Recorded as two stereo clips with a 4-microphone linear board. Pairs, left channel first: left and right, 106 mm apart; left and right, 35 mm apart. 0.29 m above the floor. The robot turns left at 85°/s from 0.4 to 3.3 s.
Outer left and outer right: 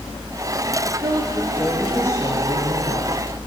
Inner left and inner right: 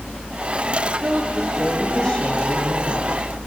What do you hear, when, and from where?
1.0 s a woman speaking: 115° right, 8 m; by 3.2 s 60° left, 8 m